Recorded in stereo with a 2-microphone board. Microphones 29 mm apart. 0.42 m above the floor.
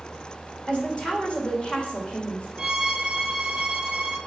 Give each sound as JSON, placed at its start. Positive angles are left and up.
{"t": 0.7, "sound": "a woman speaking", "side_deg": 35, "distance_m": 1.6}
{"t": 2.6, "sound": "a violin", "side_deg": -30, "distance_m": 0.9}